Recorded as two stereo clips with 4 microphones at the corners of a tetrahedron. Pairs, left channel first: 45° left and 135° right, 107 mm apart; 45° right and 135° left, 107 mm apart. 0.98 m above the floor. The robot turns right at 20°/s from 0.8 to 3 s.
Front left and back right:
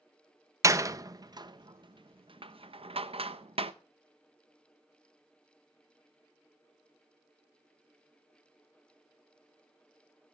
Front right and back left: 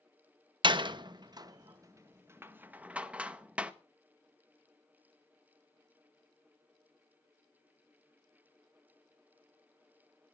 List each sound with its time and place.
0.6 s a door slam: 170° left, 0.8 m; by 3.7 s 150° right, 0.8 m